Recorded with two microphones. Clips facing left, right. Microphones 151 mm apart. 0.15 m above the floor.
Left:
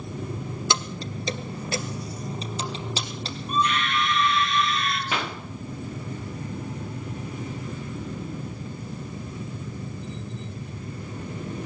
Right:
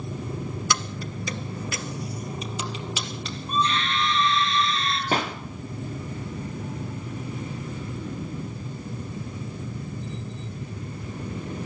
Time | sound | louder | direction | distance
0.7 | keys jangling | even | 25° left (ahead or behind) | 1.2 m
3.5 | a scream | left 1 dB | 30° right (ahead or behind) | 5 m
5.1 | a pop | right 7 dB | 40° right (ahead or behind) | 4 m